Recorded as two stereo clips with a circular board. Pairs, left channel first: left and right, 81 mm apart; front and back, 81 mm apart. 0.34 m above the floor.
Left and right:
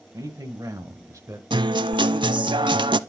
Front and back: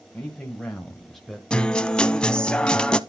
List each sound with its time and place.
0.1 s a man speaking: 75° right, 1.8 m; by 1.4 s 95° right, 1.3 m
1.5 s a guitar: 80° right, 0.5 m